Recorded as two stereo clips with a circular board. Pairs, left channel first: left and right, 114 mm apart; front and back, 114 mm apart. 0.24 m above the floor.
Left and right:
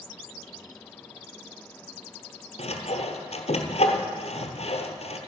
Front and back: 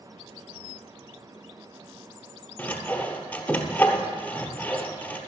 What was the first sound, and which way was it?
Sawing, 75° left.